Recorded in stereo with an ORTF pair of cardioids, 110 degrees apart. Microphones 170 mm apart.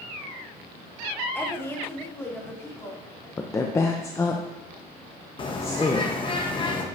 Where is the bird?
30° left, 1.0 m.